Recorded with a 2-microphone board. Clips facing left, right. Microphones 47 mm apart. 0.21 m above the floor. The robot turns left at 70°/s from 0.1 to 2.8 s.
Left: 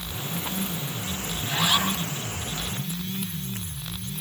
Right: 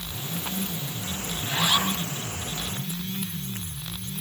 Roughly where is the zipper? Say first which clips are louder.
Even; behind.